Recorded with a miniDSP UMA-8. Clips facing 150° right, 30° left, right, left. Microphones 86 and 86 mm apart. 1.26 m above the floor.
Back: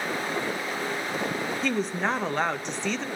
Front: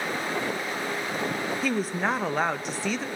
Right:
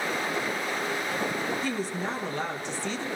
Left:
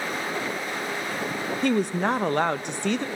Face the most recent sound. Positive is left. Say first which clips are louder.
# even, left 7 dB
turn(degrees=115)